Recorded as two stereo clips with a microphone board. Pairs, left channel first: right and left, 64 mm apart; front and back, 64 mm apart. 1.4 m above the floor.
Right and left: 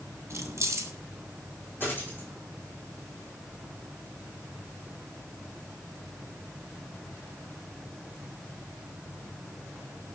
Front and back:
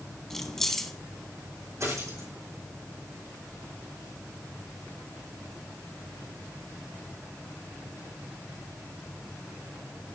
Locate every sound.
0.3 s keys jangling: 80° left, 0.8 m
1.8 s a dropped coin: 145° right, 5 m